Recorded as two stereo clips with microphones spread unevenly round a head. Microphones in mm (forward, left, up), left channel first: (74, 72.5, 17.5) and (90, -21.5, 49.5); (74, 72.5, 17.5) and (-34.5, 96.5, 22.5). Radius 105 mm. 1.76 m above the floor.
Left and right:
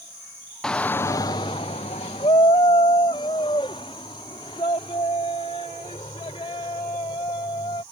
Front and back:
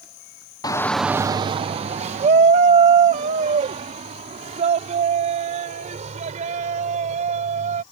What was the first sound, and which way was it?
A shout, 10° right.